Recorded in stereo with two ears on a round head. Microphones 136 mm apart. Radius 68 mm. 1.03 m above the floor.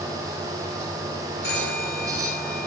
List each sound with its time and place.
1.4 s a phone ringing: 75° left (ahead or behind), 9 m